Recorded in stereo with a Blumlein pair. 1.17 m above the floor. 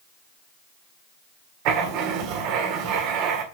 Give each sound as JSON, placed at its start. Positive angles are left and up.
{"t": 1.6, "sound": "writing", "azimuth_deg": -45, "distance_m": 1.8}